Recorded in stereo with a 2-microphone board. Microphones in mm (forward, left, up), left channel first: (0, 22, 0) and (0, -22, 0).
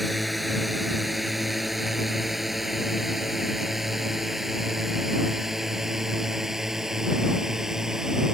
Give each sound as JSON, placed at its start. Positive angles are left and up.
{"t": 0.0, "sound": "a drone", "side_deg": 0}